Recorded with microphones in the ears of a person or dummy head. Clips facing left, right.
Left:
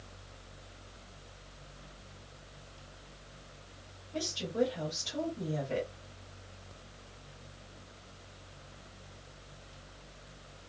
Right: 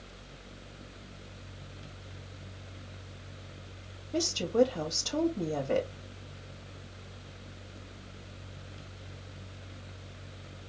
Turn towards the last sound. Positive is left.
turn(degrees=-80)